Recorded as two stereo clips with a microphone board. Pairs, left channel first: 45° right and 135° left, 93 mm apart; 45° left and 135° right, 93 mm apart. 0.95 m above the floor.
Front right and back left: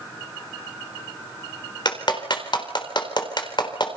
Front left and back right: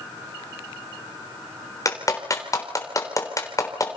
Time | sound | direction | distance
1.9 | a clap | 10° right | 3.5 m